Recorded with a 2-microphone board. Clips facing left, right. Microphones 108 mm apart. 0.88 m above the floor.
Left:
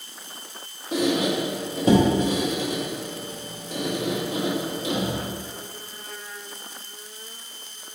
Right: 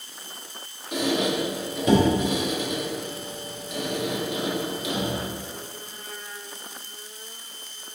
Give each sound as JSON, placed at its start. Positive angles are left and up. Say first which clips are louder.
{"t": 0.9, "sound": "a squeak", "louder": "left 2 dB", "side_deg": 35, "distance_m": 0.8}